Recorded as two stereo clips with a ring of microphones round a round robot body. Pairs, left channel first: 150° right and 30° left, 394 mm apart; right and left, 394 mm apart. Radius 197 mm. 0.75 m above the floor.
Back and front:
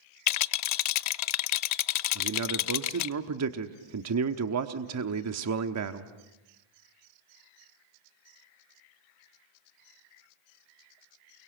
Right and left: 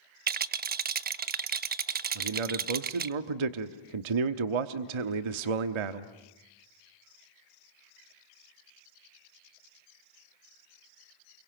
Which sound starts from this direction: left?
A man speaking, at 2.1 s.